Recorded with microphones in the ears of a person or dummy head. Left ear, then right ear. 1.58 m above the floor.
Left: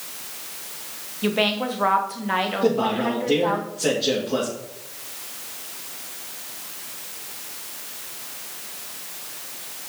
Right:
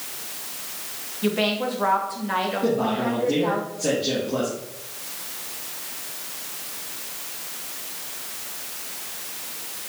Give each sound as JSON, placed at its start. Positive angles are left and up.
{"t": 1.2, "sound": "a woman speaking", "side_deg": 20, "distance_m": 1.1}
{"t": 2.6, "sound": "a man speaking", "side_deg": 45, "distance_m": 2.5}